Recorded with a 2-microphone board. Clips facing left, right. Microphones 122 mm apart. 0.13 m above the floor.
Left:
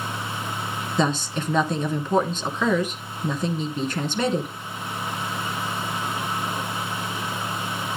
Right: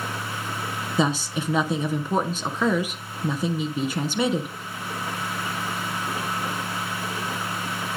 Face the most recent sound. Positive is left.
turn(degrees=-10)  # may be behind; listen again after turning